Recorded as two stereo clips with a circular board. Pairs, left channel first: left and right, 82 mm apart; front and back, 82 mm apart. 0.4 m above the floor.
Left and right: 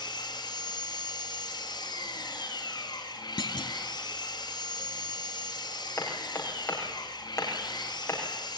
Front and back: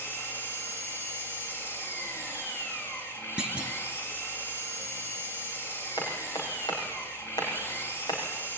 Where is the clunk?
105° left, 1.4 m.